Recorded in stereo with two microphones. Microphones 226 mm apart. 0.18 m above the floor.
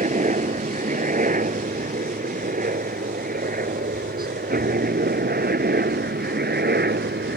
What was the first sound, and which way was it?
A helicopter, 35° right (ahead or behind).